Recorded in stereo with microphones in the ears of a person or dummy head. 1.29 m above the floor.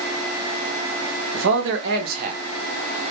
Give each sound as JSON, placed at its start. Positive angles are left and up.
{"t": 1.3, "sound": "a man speaking", "side_deg": -80, "distance_m": 1.5}